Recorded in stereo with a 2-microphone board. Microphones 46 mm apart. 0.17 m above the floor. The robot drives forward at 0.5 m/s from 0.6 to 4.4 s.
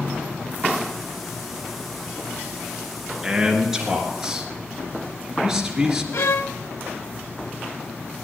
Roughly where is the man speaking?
Centre.